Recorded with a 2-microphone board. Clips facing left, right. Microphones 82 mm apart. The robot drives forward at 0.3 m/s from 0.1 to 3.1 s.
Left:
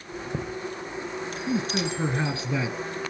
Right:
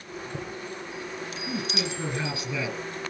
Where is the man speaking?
30° left (ahead or behind), 3 m; by 2.8 s 35° left (ahead or behind), 2.5 m.